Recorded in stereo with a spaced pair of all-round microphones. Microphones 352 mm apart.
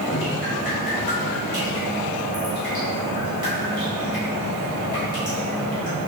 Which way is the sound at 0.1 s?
85° left.